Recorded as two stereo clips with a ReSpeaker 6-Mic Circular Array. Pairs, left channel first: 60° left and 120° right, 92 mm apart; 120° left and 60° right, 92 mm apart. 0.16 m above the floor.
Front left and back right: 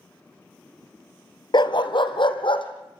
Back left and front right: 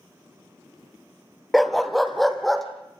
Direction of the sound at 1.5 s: 30° left.